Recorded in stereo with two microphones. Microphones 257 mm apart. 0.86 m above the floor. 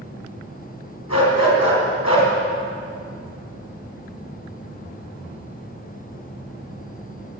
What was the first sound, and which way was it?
A dog barking, 85° left.